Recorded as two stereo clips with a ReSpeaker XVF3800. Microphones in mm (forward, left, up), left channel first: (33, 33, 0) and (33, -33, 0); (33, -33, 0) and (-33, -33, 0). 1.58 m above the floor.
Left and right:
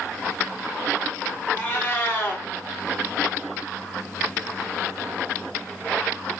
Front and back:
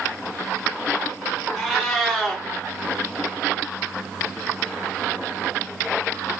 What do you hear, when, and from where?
1.5 s a cat meowing: 85° left, 0.8 m